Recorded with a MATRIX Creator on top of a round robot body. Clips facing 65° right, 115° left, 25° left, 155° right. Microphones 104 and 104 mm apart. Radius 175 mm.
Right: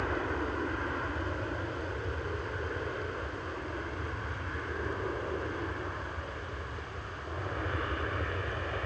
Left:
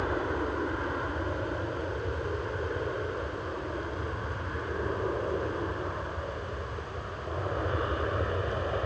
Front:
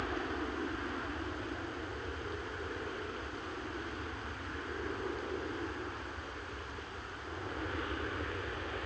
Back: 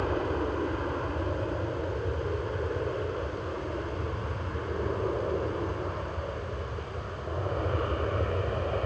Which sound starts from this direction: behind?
An aircraft, at 0.0 s.